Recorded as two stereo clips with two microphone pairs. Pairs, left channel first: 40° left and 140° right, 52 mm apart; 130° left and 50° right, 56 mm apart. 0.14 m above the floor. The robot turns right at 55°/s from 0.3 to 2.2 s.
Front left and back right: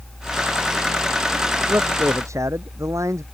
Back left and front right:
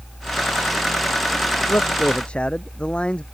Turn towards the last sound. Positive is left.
turn(degrees=-155)